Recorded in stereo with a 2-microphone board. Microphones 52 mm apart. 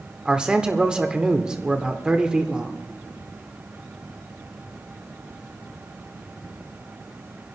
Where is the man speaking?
20° right (ahead or behind), 0.9 m.